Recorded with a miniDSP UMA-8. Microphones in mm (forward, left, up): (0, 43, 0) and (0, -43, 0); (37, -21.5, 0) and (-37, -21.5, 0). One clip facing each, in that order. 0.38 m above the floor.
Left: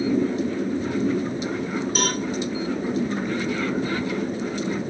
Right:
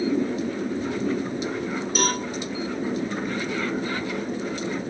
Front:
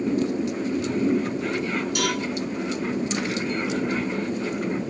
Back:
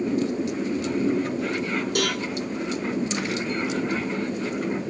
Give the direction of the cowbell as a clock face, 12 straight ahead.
6 o'clock.